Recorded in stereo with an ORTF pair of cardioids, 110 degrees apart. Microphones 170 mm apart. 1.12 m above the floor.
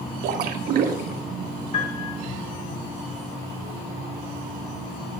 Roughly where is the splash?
Ahead right.